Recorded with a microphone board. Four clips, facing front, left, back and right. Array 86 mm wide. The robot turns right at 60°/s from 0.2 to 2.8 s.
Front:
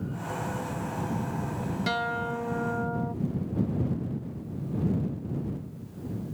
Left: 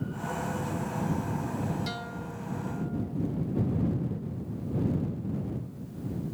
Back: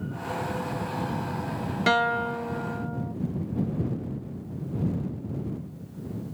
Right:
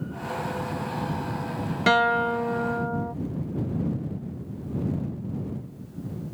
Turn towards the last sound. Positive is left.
turn(degrees=-65)